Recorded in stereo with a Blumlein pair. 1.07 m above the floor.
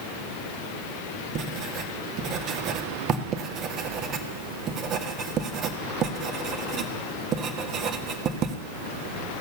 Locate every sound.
1.4 s writing: 30° right, 1.2 m